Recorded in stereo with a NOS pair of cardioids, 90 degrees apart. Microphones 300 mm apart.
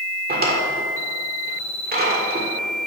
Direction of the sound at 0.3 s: 30° right.